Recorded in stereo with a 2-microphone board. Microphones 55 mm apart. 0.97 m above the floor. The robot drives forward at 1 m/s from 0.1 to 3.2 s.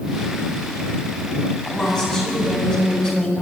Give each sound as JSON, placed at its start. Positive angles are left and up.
{"t": 1.6, "sound": "a woman speaking", "side_deg": 10, "distance_m": 8.0}